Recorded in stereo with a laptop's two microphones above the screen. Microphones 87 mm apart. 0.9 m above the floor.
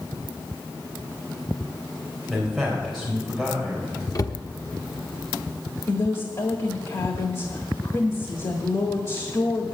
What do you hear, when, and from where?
2.3 s a man speaking: centre (ahead or behind), 3.5 m
4.2 s a cupboard door: 45° left (ahead or behind), 0.9 m
5.9 s a woman speaking: 50° left (ahead or behind), 1.5 m